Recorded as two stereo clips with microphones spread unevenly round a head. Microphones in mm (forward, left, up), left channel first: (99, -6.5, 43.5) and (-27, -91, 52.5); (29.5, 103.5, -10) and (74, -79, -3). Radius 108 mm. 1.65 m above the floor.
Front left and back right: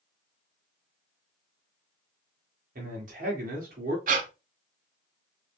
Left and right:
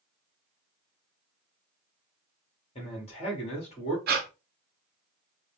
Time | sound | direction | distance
2.8 | a man speaking | 170° left | 1.7 m
4.1 | breathing | 120° right | 0.6 m